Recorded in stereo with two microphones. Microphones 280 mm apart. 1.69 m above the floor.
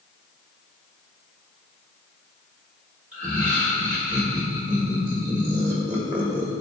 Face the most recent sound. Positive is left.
turn(degrees=-20)  # may be behind; listen again after turning